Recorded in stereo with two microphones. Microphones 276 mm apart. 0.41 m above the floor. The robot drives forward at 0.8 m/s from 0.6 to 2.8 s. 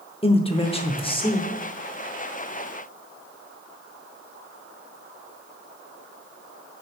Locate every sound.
0.2 s a man speaking: 20° left (ahead or behind), 0.8 m; by 1.5 s 15° left (ahead or behind), 1.0 m